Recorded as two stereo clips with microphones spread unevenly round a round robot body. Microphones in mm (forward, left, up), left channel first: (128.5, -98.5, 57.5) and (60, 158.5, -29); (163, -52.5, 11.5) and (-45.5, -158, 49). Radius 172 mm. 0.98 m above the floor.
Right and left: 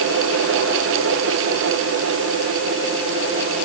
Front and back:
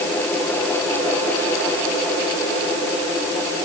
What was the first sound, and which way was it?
Only background noise.